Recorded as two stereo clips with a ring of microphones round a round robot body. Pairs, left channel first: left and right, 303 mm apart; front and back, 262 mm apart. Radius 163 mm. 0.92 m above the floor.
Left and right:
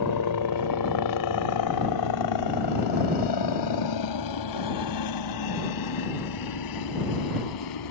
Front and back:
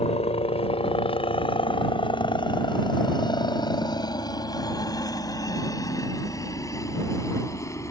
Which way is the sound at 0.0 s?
65° left.